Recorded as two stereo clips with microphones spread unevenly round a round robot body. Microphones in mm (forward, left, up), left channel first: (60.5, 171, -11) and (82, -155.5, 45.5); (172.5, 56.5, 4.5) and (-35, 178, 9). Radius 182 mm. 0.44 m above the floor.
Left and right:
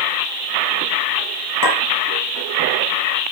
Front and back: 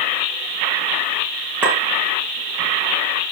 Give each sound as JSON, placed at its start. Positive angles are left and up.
{"t": 1.6, "sound": "a clink", "azimuth_deg": 65, "distance_m": 5.0}